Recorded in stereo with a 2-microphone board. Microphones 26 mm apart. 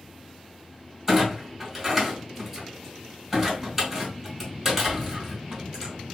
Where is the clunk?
15° right (ahead or behind), 2 m.